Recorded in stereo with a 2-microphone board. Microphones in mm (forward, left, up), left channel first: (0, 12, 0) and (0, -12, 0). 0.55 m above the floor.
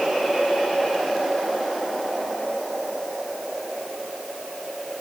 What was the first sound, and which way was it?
Only background noise.